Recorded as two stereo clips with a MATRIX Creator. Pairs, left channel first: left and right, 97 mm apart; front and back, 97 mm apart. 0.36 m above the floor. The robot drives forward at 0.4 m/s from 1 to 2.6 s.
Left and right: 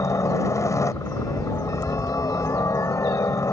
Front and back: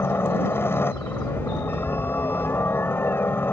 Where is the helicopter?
50° left; by 3.5 s 55° left.